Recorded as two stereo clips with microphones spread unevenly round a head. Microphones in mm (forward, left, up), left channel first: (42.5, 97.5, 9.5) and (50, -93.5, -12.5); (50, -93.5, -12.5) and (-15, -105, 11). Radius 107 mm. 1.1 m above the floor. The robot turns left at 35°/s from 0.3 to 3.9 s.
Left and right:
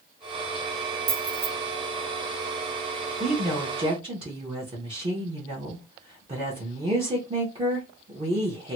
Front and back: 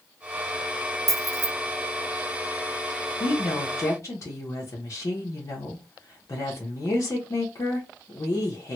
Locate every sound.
1.1 s keys jangling: 155° right, 0.7 m; by 1.5 s 170° right, 0.7 m
3.2 s a woman speaking: straight ahead, 1.0 m; by 8.8 s 25° right, 1.0 m